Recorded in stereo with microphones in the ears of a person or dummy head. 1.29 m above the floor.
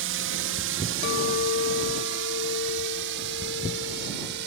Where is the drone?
60° right (ahead or behind).